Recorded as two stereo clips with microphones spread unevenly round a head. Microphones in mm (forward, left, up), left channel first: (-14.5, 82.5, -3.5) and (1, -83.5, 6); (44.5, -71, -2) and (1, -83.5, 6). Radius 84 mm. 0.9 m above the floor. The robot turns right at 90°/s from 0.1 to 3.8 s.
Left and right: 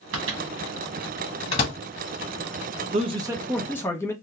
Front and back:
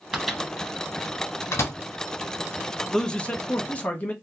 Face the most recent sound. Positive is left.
turn(degrees=30)